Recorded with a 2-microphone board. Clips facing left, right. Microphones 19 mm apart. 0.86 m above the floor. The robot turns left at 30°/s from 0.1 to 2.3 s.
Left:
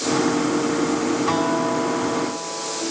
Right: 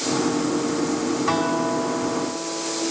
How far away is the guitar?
About 6 m.